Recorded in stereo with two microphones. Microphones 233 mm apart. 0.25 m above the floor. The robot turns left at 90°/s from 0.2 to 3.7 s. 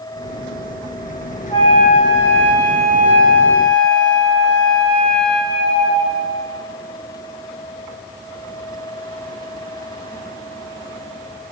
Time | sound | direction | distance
1.5 | a flute | 165° left | 3 m